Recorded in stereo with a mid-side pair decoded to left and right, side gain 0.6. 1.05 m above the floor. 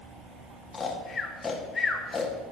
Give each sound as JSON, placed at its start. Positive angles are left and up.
{"t": 0.7, "sound": "snoring", "azimuth_deg": 30, "distance_m": 1.9}